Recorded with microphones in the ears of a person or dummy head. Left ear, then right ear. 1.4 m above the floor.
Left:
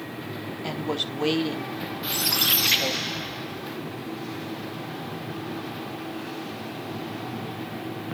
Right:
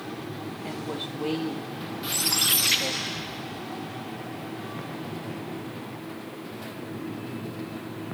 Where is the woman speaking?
80° left, 2.5 m.